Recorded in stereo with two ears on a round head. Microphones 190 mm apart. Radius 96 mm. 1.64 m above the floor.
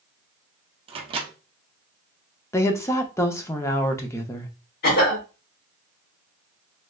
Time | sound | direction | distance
0.9 | a microwave | 25° right (ahead or behind) | 0.6 m
2.5 | a woman speaking | 15° left (ahead or behind) | 0.5 m
4.8 | a cough | 50° left (ahead or behind) | 1.6 m